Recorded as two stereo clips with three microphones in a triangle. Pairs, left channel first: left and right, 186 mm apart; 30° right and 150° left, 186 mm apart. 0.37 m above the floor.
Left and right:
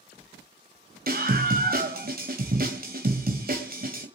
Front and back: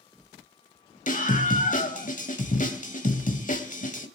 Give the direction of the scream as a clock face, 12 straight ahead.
2 o'clock.